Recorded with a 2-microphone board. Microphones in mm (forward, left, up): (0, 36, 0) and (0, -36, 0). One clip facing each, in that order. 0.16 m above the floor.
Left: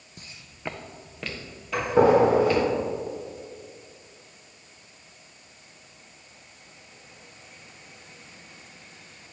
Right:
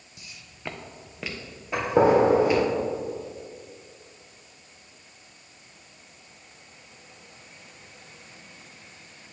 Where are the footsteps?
45° left (ahead or behind), 0.5 m; by 2.6 s 15° right (ahead or behind), 3 m.